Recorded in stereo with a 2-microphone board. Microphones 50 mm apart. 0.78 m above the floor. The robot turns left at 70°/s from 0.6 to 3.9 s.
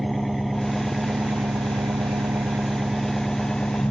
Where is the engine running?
5° left; by 3.9 s 135° left.